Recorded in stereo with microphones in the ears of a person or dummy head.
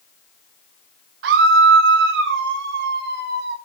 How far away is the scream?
About 0.8 m.